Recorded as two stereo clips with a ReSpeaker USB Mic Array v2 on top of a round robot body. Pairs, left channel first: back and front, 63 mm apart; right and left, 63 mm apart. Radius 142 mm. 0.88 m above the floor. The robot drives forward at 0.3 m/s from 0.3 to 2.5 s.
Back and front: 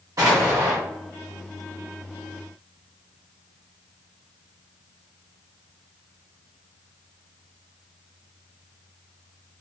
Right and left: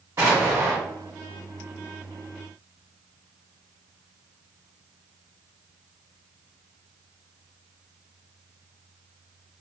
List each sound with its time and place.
0.2 s an explosion: 40° left, 0.9 m; by 0.8 s 50° left, 0.8 m